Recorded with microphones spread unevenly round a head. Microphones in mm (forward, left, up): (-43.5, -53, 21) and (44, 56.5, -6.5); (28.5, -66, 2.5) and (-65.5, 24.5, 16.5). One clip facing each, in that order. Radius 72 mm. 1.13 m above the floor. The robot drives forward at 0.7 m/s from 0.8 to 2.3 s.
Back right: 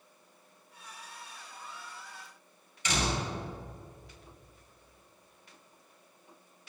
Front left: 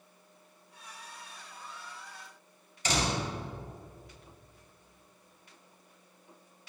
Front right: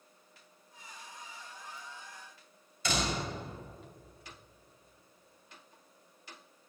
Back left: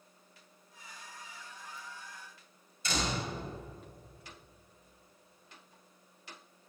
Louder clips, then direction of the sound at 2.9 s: Front left 1 dB, front right 1 dB; 5° right.